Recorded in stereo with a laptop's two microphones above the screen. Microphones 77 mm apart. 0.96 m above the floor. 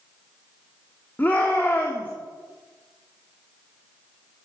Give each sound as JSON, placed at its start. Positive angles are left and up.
{"t": 1.2, "sound": "a shout", "side_deg": 25, "distance_m": 2.5}